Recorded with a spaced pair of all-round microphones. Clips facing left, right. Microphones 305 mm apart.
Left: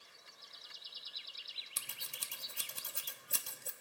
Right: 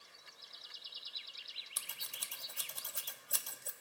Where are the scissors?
30° left (ahead or behind), 0.5 m.